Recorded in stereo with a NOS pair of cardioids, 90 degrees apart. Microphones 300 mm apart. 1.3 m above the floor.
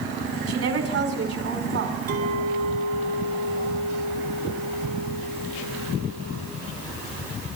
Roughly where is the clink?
Ahead right.